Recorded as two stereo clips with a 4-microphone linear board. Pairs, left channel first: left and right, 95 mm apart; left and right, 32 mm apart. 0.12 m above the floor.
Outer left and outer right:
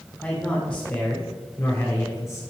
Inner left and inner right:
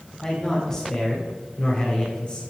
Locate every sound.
0.2 s a man speaking: 15° left (ahead or behind), 3 m; by 2.4 s 30° left (ahead or behind), 1.6 m